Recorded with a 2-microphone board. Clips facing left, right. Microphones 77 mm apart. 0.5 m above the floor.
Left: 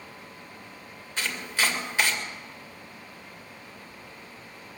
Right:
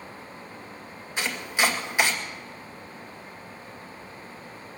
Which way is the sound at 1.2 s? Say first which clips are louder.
Right 3 dB; 15° right (ahead or behind).